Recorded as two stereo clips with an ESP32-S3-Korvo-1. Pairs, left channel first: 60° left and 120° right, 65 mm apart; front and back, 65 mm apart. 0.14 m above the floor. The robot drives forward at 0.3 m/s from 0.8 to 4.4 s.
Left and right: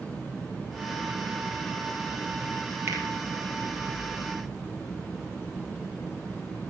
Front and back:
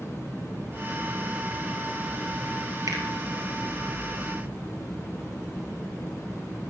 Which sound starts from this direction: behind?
A finger snap, at 2.9 s.